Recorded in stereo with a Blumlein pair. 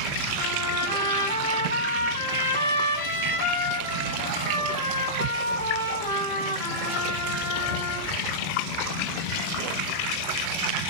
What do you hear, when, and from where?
0.4 s a trumpet: 65° left, 9 m